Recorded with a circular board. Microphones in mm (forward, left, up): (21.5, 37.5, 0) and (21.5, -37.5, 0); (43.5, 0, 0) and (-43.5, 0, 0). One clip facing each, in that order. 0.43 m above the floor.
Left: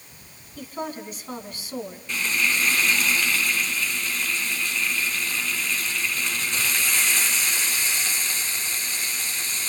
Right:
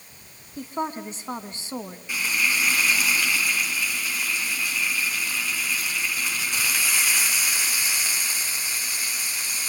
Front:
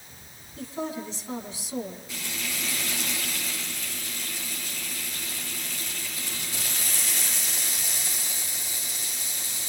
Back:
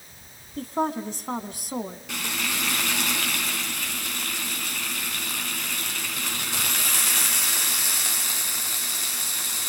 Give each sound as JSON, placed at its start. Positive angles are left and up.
{"t": 0.6, "sound": "a woman speaking", "azimuth_deg": -150, "distance_m": 3.0}
{"t": 2.1, "sound": "frying", "azimuth_deg": -170, "distance_m": 3.5}